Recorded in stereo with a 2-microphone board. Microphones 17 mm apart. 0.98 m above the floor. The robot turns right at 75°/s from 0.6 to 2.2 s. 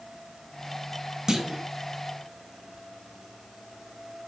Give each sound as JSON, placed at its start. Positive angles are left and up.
{"t": 1.3, "sound": "a clunk", "side_deg": -40, "distance_m": 1.4}